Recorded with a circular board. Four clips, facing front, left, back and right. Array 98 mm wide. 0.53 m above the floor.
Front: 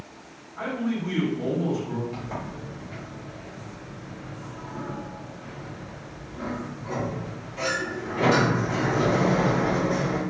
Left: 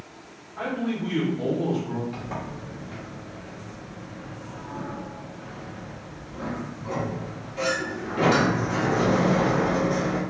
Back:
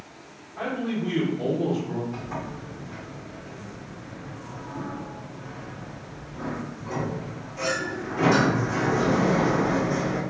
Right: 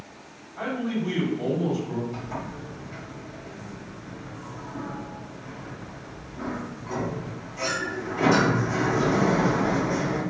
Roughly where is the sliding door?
Ahead left.